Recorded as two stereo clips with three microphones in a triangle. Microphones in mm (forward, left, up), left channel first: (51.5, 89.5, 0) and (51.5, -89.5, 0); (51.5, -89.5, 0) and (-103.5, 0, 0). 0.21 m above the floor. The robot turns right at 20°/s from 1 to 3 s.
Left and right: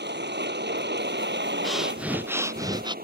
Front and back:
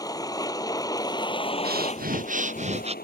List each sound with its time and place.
0.0 s a vehicle: 100° right; by 3.0 s 60° right
1.6 s breathing: straight behind; by 3.0 s 155° right